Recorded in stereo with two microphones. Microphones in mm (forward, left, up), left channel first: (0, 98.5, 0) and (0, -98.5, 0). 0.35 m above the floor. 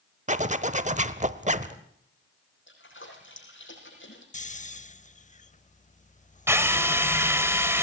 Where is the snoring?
40° left (ahead or behind), 0.6 m.